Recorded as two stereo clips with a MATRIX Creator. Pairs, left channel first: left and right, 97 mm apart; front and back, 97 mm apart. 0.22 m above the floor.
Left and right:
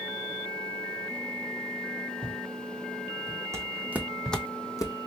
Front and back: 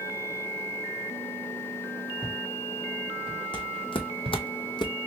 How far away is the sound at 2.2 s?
About 1.3 m.